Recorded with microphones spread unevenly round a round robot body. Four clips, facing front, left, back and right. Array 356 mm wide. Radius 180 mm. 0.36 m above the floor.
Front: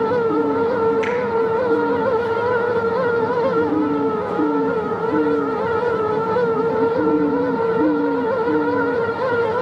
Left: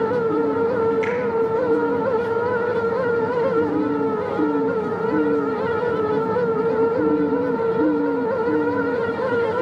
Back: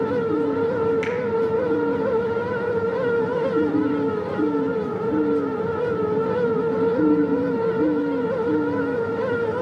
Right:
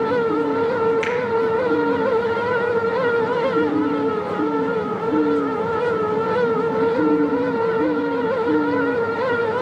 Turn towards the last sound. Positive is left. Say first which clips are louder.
# even, front 4 dB
turn(degrees=-175)